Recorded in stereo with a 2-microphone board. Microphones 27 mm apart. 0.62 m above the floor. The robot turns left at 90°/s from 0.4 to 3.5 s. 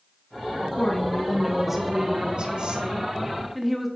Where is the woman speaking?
80° left, 1.1 m; by 3.9 s straight behind, 1.1 m.